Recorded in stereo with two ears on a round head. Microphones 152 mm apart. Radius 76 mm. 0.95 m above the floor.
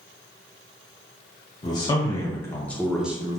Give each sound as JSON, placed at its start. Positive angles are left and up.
{"t": 1.6, "sound": "a man speaking", "side_deg": 25, "distance_m": 1.2}